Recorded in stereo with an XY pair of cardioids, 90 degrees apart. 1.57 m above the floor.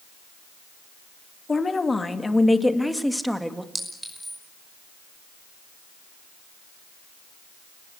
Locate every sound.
1.5 s a woman speaking: 30° left, 2.5 m; by 3.6 s 10° right, 2.5 m
3.8 s a clink: 15° right, 5.5 m